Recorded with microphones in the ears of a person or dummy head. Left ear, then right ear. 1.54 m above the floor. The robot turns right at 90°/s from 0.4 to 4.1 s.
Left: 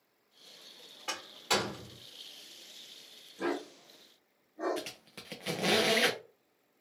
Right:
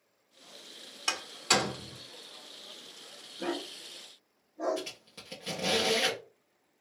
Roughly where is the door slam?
Right.